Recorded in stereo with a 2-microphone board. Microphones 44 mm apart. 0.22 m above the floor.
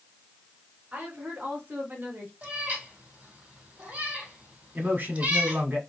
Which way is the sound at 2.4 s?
40° right (ahead or behind).